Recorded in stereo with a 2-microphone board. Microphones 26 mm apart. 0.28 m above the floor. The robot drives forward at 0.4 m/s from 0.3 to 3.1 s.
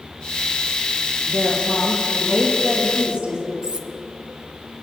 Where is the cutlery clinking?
40° right (ahead or behind), 1.0 m.